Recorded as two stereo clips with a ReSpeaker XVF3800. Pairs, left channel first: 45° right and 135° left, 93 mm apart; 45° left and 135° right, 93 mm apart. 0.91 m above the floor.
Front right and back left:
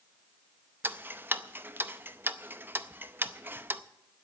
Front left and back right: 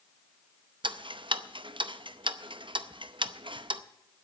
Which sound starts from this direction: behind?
Ticking, at 0.8 s.